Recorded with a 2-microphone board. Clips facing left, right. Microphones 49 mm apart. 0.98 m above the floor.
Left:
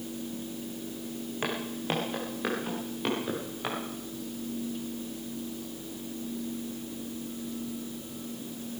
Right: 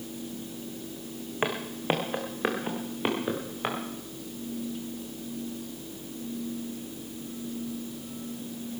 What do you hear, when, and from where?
1.4 s footsteps: 25° right (ahead or behind), 3 m